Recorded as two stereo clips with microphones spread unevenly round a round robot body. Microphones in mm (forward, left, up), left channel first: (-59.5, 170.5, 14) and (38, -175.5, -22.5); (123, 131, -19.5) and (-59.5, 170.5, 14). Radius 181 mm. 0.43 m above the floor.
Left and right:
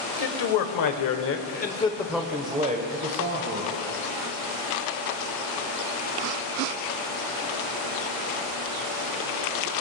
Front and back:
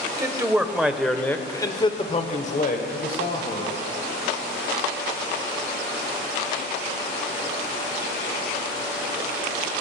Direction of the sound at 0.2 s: 90° left.